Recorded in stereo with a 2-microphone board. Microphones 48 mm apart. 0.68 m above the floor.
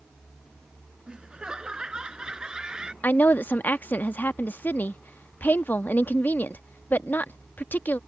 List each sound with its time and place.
1.1 s laughter: 20° right (ahead or behind)
3.0 s a woman speaking: 40° left (ahead or behind)